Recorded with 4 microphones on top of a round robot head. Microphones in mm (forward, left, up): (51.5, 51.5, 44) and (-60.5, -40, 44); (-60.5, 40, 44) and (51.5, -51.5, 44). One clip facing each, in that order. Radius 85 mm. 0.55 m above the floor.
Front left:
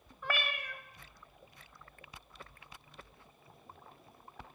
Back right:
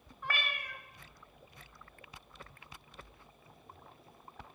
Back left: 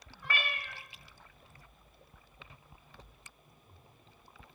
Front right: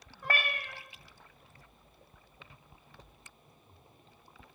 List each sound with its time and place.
0.2 s a cat meowing: 15° left, 0.9 m